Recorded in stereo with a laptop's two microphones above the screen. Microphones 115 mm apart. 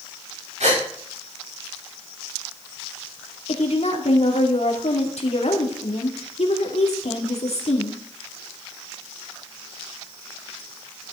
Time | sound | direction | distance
0.6 | a gasp | 85° right | 7 m
3.5 | a woman speaking | 70° left (ahead or behind) | 2.5 m